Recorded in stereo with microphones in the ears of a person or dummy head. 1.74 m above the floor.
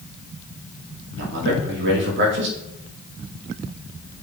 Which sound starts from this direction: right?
A man speaking, at 1.2 s.